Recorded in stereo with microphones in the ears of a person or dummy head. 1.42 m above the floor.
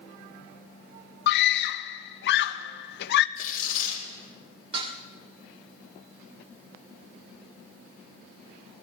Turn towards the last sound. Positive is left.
turn(degrees=-30)  # may be behind; listen again after turning